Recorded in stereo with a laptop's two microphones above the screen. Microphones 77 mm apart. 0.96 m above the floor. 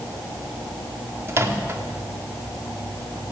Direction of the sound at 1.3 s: 35° right (ahead or behind).